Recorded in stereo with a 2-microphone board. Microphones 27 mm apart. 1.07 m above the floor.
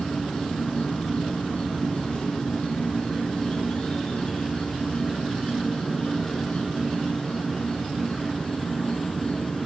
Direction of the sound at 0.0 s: 50° left (ahead or behind).